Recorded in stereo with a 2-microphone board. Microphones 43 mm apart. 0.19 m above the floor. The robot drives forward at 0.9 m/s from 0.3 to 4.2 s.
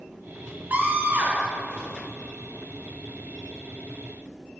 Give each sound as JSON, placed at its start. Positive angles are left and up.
{"t": 0.7, "sound": "a scream", "side_deg": -50, "distance_m": 2.5}